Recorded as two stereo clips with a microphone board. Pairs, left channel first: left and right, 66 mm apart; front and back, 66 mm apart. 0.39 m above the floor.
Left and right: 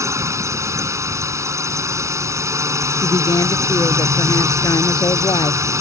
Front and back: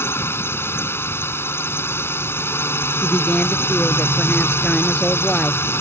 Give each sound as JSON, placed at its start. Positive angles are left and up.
{"t": 0.0, "sound": "a drone", "azimuth_deg": -50}
{"t": 3.0, "sound": "a woman speaking", "azimuth_deg": 75}